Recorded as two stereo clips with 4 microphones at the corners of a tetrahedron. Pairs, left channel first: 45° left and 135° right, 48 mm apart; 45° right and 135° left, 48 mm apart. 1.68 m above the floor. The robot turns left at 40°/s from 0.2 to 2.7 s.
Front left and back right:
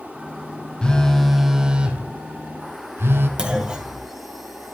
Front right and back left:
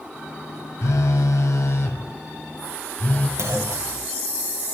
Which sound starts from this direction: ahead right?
A phone buzzing, at 0.8 s.